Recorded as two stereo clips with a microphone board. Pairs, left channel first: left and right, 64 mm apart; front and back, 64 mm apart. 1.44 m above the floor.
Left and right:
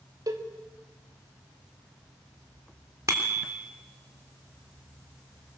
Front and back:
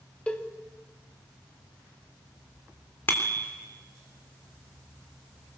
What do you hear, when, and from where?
0.3 s a cowbell: 75° right, 1.8 m
3.1 s a bicycle bell: 55° right, 3.5 m